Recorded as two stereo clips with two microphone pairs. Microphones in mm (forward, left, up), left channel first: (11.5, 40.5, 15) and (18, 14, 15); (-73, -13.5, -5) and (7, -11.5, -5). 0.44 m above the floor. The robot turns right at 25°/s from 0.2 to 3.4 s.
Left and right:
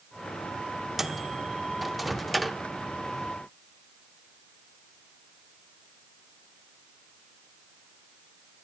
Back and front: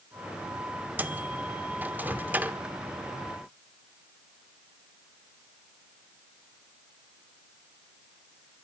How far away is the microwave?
About 0.6 m.